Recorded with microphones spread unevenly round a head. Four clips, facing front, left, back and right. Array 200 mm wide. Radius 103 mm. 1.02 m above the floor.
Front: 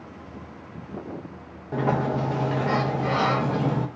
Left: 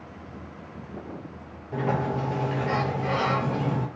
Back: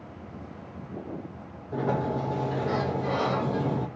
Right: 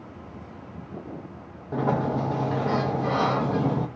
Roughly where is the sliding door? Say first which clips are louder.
Right 2 dB, front 3 dB; ahead right.